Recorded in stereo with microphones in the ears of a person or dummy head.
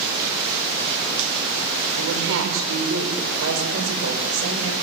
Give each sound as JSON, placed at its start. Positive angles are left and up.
{"t": 1.9, "sound": "a woman speaking", "side_deg": -75, "distance_m": 5.5}